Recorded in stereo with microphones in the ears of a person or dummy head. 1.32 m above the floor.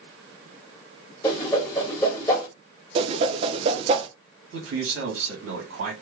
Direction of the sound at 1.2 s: 20° left (ahead or behind).